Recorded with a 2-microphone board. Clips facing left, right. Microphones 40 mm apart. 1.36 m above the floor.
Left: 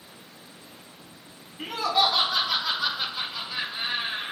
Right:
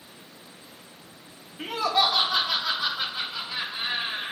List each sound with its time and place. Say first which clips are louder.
1.6 s laughter: even; 40° right (ahead or behind), 3.5 m; by 4.3 s 35° right (ahead or behind), 6.5 m